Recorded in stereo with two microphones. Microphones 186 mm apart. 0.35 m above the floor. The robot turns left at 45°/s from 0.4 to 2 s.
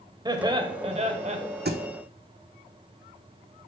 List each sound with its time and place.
0.2 s laughter: 35° right, 1.0 m; by 1.4 s 80° right, 1.0 m
1.6 s a thud: 65° right (ahead or behind), 1.0 m; by 1.8 s 60° right (ahead or behind), 1.0 m